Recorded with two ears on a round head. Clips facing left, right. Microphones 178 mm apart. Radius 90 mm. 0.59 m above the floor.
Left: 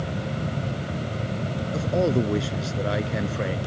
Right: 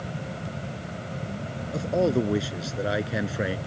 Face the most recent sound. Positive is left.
turn(degrees=-10)  # may be behind; listen again after turning